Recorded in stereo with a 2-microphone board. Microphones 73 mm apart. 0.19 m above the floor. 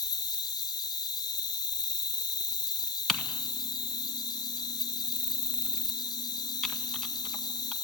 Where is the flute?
I don't hear a flute.